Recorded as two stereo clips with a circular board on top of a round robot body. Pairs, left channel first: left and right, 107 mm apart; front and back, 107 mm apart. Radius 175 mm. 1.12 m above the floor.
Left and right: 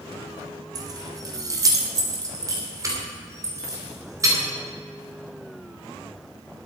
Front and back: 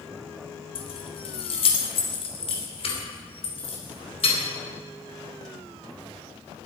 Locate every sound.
0.8 s keys jangling: 35° right, 0.9 m; by 4.4 s 30° right, 3.5 m